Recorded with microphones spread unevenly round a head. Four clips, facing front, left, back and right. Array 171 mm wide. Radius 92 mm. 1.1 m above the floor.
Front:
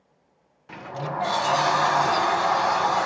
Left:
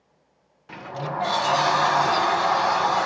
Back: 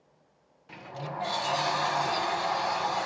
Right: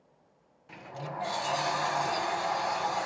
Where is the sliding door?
60° left.